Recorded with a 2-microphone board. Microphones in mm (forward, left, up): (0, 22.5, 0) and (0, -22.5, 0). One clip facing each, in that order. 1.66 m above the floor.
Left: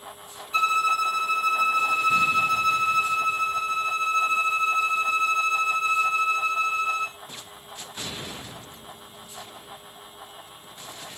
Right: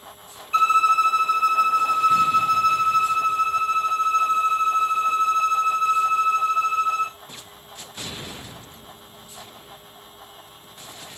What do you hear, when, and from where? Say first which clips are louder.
0.5 s a violin: right 5 dB; 55° right (ahead or behind), 1.9 m